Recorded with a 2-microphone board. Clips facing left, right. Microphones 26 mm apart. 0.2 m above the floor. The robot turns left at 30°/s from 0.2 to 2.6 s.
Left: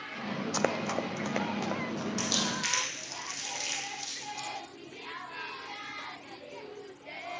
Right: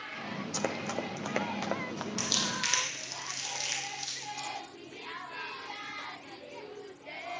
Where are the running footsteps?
30° left (ahead or behind), 0.6 m; by 2.1 s 30° right (ahead or behind), 1.5 m.